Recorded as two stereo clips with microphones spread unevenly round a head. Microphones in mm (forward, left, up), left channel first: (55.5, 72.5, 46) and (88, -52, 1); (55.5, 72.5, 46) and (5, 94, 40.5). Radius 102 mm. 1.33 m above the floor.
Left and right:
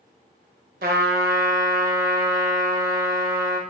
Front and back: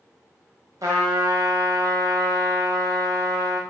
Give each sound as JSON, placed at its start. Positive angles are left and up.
{"t": 0.8, "sound": "a trumpet", "azimuth_deg": -130, "distance_m": 0.9}